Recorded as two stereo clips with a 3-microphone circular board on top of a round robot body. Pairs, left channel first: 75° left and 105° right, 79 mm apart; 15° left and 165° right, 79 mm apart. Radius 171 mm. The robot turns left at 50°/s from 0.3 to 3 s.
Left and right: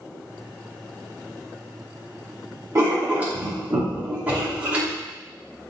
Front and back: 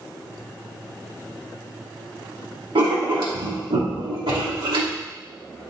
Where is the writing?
160° right, 2 m; by 5.0 s 175° right, 2 m.